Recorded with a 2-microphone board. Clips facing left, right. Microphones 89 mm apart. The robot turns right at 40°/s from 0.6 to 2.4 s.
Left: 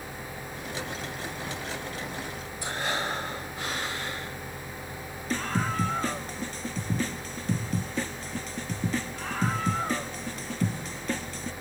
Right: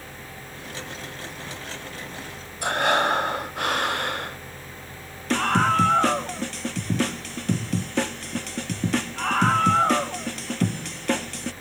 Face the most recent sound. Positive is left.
turn(degrees=-75)  # may be behind; listen again after turning